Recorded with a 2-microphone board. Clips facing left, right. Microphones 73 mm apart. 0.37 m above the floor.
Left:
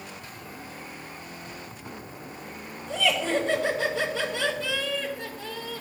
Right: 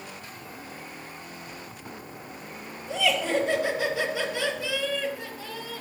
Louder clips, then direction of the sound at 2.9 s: Even; 15° right (ahead or behind).